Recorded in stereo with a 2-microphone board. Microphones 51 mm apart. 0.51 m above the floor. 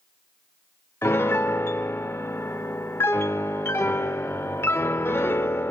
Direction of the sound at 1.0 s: 55° left (ahead or behind).